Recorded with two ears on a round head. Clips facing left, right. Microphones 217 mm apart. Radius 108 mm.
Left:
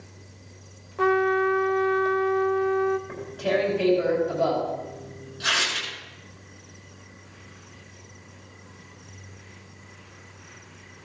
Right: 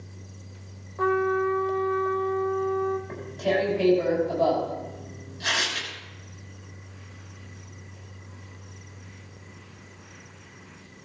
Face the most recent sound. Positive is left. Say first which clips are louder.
# even
turn(degrees=20)  # may be behind; listen again after turning